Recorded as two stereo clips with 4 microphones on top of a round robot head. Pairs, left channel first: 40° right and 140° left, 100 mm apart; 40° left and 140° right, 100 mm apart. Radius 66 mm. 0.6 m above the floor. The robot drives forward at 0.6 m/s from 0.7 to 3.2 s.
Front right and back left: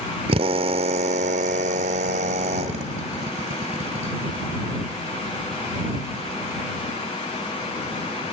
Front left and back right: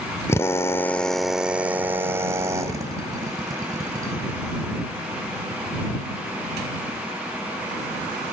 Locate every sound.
0.3 s a drill: 110° left, 0.6 m; by 4.1 s 160° left, 1.8 m